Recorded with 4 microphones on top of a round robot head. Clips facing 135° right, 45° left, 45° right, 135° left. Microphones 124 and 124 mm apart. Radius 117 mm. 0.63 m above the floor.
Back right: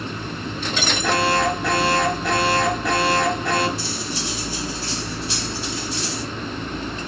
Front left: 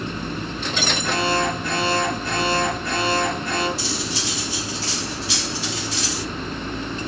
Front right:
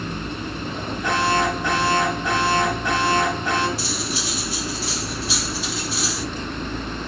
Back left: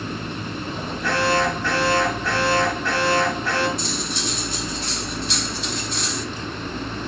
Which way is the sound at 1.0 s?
120° right.